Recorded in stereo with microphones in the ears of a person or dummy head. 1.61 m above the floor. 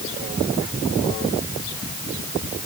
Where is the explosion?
No explosion in this recording.